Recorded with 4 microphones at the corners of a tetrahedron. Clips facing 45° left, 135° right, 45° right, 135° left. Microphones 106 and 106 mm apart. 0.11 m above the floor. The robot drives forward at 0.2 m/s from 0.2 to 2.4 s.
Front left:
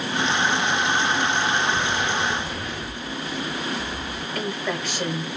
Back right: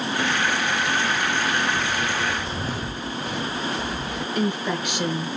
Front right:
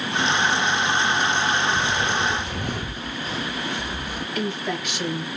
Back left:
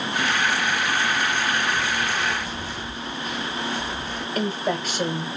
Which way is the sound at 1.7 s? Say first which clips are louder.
Front left 1 dB, front right 2 dB; 35° right.